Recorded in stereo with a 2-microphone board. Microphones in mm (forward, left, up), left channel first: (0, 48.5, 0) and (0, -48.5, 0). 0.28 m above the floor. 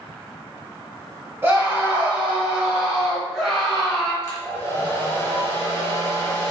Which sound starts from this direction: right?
A scream, at 1.4 s.